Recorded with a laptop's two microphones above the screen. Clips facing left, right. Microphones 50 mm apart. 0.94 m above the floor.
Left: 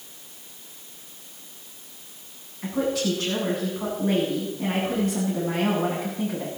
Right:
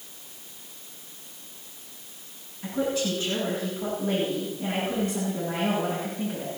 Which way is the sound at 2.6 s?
70° left (ahead or behind).